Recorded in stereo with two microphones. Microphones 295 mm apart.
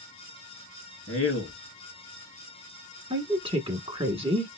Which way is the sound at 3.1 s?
20° right (ahead or behind).